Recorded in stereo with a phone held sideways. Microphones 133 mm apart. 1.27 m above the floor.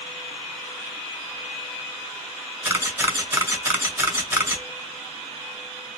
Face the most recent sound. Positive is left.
turn(degrees=-20)  # may be behind; listen again after turning